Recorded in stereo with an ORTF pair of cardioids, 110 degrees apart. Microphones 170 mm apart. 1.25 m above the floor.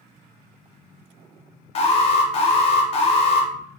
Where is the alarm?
35° left, 0.6 m.